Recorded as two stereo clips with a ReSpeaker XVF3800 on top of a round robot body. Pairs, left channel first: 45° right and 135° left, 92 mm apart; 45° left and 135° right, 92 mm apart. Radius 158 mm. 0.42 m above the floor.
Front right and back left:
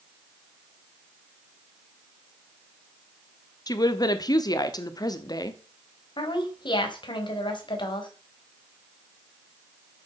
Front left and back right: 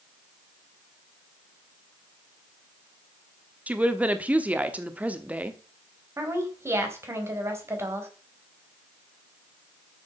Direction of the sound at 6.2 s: 75° right.